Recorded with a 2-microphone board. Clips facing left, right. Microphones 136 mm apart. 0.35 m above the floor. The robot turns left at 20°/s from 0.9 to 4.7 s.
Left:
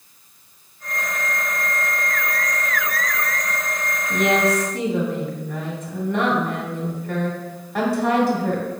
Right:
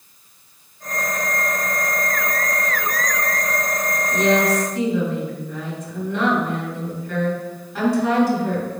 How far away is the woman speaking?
About 2.5 m.